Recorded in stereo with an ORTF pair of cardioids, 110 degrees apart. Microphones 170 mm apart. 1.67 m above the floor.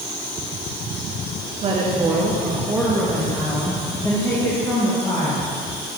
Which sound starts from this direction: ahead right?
A woman speaking, at 1.6 s.